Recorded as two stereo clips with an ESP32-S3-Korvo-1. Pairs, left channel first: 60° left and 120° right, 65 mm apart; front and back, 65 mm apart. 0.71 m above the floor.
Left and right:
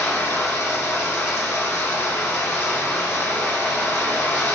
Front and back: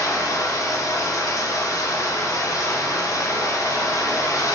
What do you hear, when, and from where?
0.0 s running water: 10° left, 1.2 m